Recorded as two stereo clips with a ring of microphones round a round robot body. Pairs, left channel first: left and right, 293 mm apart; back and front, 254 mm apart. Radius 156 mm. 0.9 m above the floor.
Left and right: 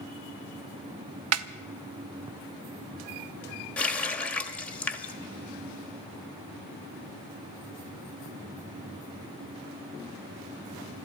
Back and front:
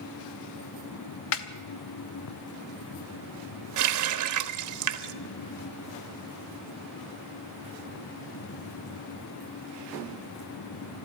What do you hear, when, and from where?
1.3 s a snare drum: 130° right, 0.6 m
3.8 s a running tap: 5° left, 1.0 m